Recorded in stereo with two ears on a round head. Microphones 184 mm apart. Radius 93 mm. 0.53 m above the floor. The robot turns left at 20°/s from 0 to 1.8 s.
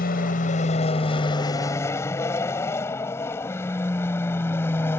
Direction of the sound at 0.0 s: 45° left (ahead or behind).